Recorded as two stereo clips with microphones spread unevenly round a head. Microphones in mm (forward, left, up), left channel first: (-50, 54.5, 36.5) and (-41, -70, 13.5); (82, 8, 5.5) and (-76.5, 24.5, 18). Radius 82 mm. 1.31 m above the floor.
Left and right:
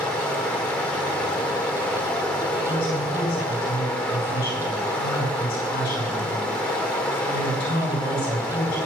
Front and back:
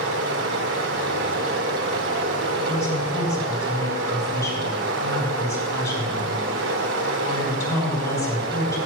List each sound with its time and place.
0.0 s running water: 175° left, 2.5 m
2.6 s a woman speaking: 65° left, 7.5 m